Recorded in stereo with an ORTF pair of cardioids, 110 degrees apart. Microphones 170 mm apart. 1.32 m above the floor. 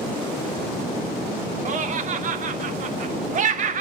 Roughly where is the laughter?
Ahead right.